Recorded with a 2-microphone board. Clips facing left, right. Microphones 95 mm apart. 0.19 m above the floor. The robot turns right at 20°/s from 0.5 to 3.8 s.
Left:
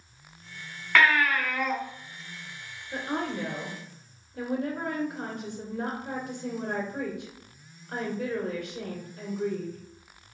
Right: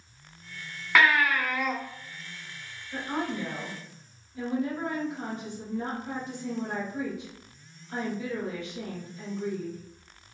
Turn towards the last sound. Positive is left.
turn(degrees=60)  # may be behind; listen again after turning